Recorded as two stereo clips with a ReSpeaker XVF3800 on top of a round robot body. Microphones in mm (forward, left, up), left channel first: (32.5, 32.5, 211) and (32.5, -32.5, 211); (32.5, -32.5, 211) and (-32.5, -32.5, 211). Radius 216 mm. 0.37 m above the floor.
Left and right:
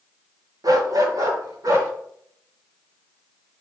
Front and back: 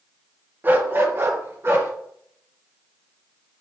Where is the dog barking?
120° right, 1.5 m; by 1.9 s 130° right, 3.5 m.